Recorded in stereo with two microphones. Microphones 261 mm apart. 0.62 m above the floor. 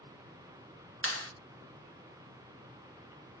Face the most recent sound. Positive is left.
turn(degrees=60)  # may be behind; listen again after turning